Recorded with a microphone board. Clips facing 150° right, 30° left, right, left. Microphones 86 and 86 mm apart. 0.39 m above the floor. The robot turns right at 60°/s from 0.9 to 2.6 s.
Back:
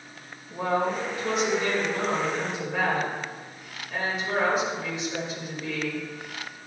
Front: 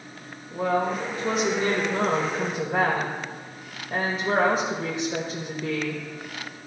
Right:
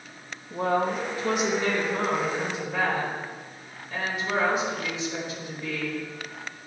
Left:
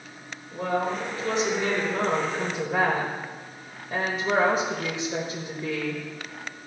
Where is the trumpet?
I don't hear a trumpet.